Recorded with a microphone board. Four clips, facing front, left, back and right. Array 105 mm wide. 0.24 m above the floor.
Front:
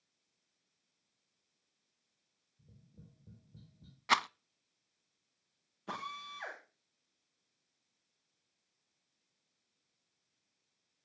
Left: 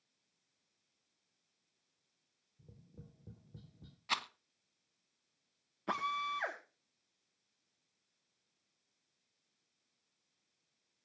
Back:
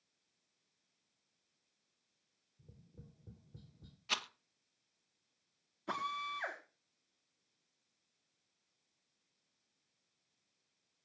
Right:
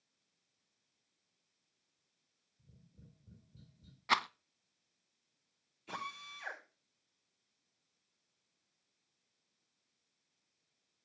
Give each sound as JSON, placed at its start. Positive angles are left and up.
{"t": 2.6, "sound": "tapping", "azimuth_deg": 100, "distance_m": 3.5}
{"t": 4.1, "sound": "a rattle", "azimuth_deg": -30, "distance_m": 0.5}
{"t": 5.9, "sound": "a drill", "azimuth_deg": 85, "distance_m": 8.5}